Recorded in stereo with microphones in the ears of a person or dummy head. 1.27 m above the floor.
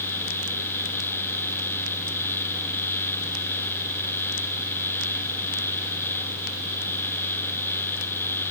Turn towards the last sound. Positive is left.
No sound to turn to.